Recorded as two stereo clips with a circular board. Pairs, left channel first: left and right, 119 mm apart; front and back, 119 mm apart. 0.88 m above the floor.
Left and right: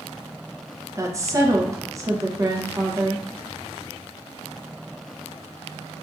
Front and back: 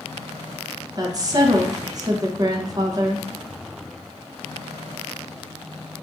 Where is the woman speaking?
140° right, 0.6 m.